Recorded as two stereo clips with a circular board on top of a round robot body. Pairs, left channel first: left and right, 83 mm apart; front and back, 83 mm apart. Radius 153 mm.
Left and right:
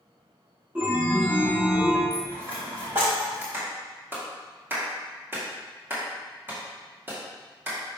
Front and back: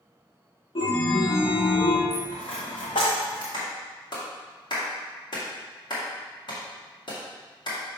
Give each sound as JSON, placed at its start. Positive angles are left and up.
{"t": 0.8, "sound": "a chime", "azimuth_deg": -20, "distance_m": 1.3}
{"t": 2.1, "sound": "a dropped coin", "azimuth_deg": -25, "distance_m": 1.1}
{"t": 3.5, "sound": "a clap", "azimuth_deg": -25, "distance_m": 2.0}